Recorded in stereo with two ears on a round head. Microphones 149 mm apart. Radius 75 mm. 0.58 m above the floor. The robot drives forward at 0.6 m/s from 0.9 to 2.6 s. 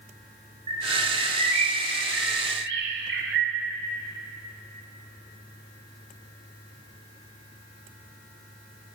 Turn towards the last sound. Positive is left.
turn(degrees=-70)  # may be behind; listen again after turning